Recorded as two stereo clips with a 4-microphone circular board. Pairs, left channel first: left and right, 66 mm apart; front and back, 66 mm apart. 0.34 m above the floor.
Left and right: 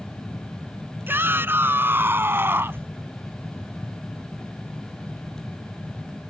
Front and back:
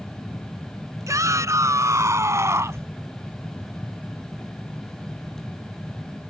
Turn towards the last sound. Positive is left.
turn(degrees=-140)